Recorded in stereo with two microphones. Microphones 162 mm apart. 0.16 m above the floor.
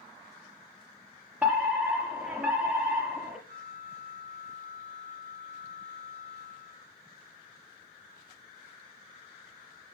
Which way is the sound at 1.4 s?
5° right (ahead or behind).